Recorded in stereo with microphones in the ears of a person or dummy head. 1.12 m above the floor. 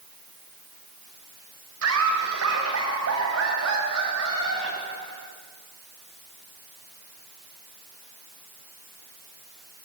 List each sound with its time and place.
1.8 s laughter: 85° right, 5 m; by 5.3 s 75° right (ahead or behind), 9 m